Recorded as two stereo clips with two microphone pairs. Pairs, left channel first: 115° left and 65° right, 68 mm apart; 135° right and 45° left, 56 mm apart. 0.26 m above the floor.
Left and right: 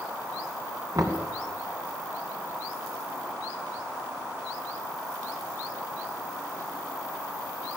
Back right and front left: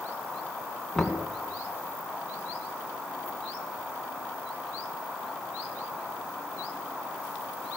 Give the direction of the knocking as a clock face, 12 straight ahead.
2 o'clock.